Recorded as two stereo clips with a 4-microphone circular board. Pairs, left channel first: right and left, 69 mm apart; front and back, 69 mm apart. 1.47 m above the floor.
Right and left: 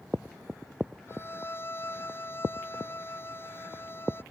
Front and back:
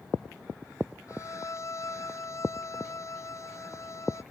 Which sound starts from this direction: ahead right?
A violin, at 1.1 s.